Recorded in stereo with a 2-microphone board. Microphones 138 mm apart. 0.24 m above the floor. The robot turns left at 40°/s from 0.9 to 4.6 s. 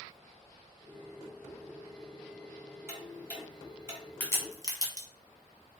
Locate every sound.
2.9 s ticking: 15° right (ahead or behind), 0.9 m; by 4.0 s 25° right (ahead or behind), 0.9 m
4.2 s a crack: 15° left (ahead or behind), 0.9 m; by 5.1 s 30° left (ahead or behind), 0.9 m